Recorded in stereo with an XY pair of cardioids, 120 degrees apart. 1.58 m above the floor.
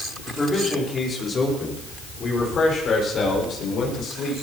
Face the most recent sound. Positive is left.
turn(degrees=55)